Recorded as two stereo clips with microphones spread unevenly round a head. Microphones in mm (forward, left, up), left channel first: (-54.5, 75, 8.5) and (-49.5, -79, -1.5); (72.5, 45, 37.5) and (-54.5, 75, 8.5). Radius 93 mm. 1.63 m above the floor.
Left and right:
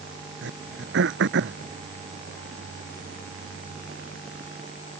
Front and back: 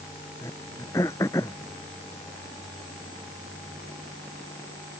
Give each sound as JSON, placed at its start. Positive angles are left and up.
{"t": 0.4, "sound": "throat clearing", "azimuth_deg": -90}